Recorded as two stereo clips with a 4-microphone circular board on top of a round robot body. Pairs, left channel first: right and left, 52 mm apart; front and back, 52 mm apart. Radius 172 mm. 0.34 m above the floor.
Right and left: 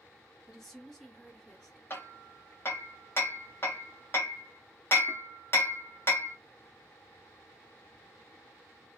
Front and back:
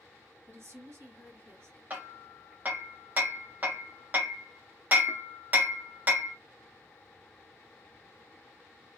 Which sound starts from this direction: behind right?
Hammering, at 1.9 s.